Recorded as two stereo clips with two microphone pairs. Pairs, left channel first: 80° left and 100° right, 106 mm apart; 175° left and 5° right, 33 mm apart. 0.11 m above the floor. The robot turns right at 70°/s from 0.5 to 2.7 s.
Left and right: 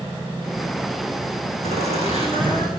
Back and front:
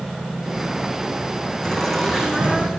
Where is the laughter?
120° right, 9 m; by 2.7 s 45° right, 9 m.